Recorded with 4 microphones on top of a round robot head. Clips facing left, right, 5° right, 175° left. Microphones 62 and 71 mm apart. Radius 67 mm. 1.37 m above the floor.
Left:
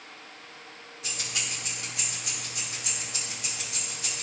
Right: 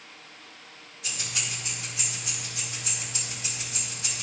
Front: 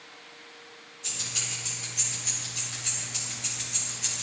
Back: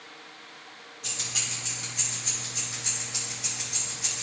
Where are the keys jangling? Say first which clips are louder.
Even, back 1 dB; 140° left, 2.5 m; by 4.2 s 95° left, 3.5 m.